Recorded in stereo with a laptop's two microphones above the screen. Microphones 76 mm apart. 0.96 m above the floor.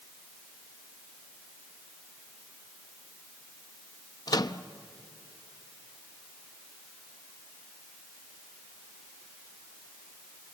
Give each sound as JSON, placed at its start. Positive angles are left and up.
{"t": 4.3, "sound": "a microwave", "side_deg": 60, "distance_m": 0.7}